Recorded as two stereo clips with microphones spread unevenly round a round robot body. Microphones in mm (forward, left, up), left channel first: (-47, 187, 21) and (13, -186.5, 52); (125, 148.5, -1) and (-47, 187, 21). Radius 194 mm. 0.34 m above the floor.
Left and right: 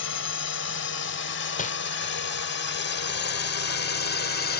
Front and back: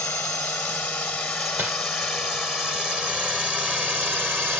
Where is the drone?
60° left; by 4.6 s 90° left.